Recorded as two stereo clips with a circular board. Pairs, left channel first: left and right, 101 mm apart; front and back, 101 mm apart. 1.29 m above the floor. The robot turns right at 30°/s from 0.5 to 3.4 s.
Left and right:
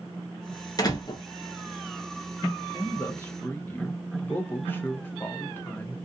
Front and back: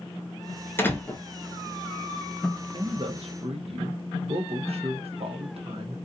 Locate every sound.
0.8 s a door slam: 60° left, 0.6 m; by 1.2 s 70° left, 0.6 m
2.7 s a man speaking: 140° left, 0.8 m; by 6.0 s 160° left, 0.8 m